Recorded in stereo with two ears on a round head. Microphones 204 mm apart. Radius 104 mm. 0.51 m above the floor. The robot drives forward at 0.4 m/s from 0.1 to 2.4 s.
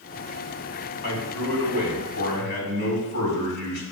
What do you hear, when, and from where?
1.0 s a man speaking: 65° left (ahead or behind), 3.5 m; by 3.8 s 55° left (ahead or behind), 3.5 m